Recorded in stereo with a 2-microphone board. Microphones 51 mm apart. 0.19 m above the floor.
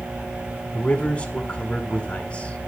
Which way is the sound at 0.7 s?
20° left (ahead or behind).